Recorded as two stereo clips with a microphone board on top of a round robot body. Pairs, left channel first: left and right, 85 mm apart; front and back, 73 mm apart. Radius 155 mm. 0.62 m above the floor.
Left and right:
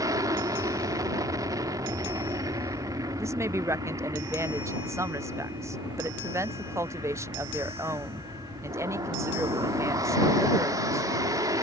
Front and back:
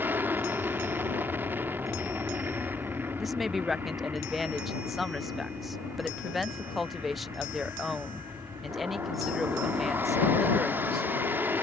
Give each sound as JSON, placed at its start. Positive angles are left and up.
{"t": 0.0, "sound": "an aircraft", "azimuth_deg": -125}
{"t": 3.2, "sound": "a woman speaking", "azimuth_deg": -90}